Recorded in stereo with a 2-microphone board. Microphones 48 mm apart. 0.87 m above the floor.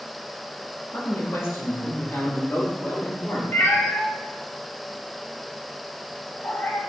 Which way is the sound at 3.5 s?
50° left (ahead or behind).